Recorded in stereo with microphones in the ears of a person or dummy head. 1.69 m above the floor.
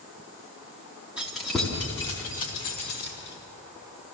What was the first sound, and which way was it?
Keys jangling, 10° right (ahead or behind).